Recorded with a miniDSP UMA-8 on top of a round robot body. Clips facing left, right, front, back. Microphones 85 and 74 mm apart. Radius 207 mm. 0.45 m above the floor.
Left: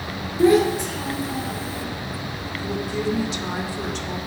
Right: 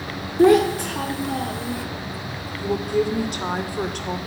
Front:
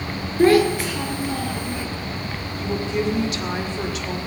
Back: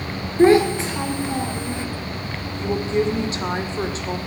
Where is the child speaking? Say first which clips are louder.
Right 2 dB, back 1 dB; 115° right, 2.0 m.